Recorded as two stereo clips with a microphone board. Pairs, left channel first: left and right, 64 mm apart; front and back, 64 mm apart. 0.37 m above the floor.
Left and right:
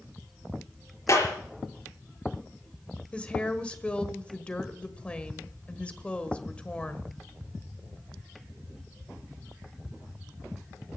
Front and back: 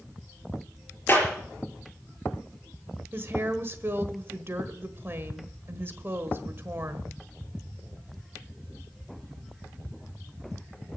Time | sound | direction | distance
1.1 | a clap | 60° left | 5 m
3.1 | a woman speaking | 155° left | 1.5 m